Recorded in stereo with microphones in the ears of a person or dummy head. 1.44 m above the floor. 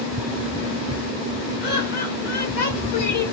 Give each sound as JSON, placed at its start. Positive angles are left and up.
{"t": 1.6, "sound": "laughter", "side_deg": 55, "distance_m": 1.5}